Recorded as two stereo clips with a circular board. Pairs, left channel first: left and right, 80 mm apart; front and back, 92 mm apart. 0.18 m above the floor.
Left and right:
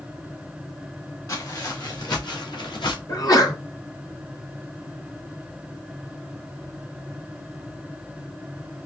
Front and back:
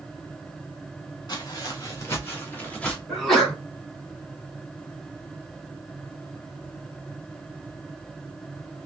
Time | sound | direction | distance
1.3 | footsteps | 45° left | 2 m
3.1 | a sneeze | 85° left | 2 m